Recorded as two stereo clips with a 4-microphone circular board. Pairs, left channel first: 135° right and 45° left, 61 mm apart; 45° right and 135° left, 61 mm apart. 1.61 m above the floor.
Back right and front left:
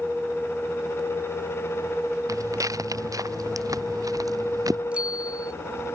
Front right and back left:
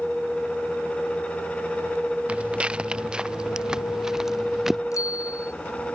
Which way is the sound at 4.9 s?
25° right.